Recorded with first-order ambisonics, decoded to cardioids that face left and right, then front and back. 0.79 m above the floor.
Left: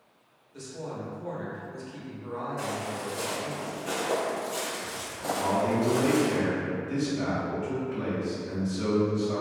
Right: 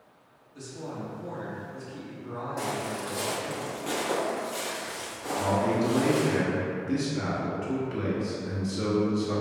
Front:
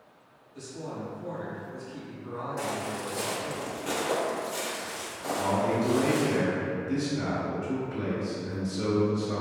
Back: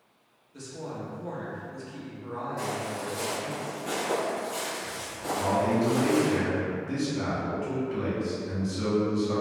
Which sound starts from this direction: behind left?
A woman speaking, at 0.5 s.